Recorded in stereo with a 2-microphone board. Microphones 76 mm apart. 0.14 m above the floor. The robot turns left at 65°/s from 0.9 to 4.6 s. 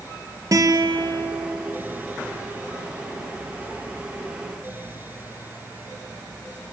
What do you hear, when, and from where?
0.5 s a guitar: 55° right, 2.5 m; by 1.5 s 90° right, 2.5 m